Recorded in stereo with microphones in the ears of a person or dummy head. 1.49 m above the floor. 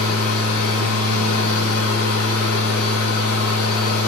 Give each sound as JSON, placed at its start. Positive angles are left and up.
{"t": 0.0, "sound": "a machine running", "side_deg": 80, "distance_m": 2.5}